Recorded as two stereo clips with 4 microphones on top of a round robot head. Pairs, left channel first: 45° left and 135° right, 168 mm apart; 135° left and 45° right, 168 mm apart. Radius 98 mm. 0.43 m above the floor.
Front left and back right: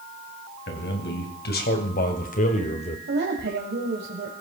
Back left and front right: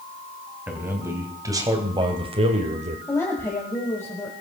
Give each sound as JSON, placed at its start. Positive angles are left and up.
{"t": 0.7, "sound": "a man speaking", "azimuth_deg": 35, "distance_m": 3.5}
{"t": 3.1, "sound": "a woman speaking", "azimuth_deg": -150, "distance_m": 2.0}